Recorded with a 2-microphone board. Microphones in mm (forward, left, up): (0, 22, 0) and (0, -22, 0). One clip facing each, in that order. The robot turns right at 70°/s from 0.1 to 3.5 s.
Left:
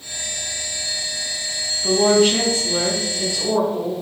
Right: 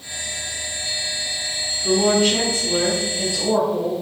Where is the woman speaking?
120° left, 1.2 m; by 3.9 s 125° right, 1.2 m.